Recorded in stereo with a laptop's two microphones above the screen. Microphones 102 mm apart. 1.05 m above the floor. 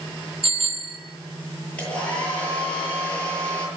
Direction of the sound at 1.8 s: 10° left (ahead or behind).